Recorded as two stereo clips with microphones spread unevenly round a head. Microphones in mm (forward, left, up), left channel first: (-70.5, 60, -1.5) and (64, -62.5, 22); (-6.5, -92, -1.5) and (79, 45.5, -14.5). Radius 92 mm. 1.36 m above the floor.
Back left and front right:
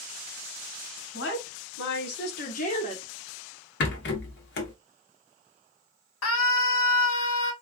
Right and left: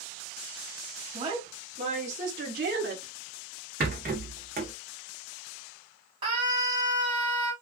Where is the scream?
125° left, 1.5 m.